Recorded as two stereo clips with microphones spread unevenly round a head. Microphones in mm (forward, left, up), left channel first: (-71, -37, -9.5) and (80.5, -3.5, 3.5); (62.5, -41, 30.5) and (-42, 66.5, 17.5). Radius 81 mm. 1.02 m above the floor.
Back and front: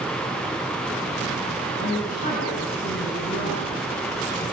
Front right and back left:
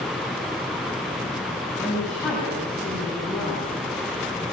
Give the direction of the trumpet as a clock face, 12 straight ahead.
No trumpet in this recording.